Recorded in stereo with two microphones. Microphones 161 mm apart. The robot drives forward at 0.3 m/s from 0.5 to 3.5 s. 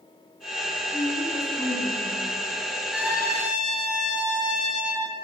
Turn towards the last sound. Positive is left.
turn(degrees=-5)  # may be behind; listen again after turning